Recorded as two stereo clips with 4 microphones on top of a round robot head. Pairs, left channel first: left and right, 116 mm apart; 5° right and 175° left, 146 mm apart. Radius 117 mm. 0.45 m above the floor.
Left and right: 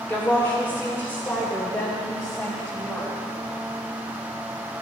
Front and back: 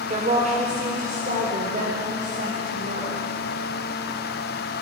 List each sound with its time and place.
0.1 s a woman speaking: 160° left, 1.9 m